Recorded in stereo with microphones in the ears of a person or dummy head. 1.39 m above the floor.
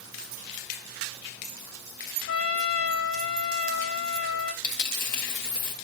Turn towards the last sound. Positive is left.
turn(degrees=40)  # may be behind; listen again after turning